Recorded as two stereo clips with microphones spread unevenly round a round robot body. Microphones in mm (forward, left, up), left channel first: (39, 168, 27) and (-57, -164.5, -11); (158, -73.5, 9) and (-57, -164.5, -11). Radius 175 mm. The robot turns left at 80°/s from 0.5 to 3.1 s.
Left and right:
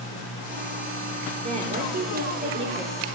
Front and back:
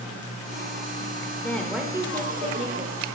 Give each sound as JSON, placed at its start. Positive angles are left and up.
{"t": 1.4, "sound": "a woman speaking", "azimuth_deg": -60, "distance_m": 0.9}